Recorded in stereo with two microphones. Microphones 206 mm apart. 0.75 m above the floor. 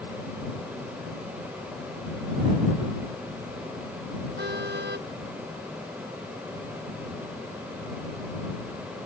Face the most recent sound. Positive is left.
turn(degrees=-55)  # may be behind; listen again after turning